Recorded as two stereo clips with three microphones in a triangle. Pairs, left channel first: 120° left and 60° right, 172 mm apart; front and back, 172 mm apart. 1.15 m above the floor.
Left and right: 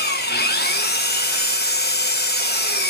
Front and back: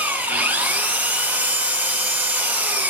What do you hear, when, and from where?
0.0 s an engine running: 100° left, 0.7 m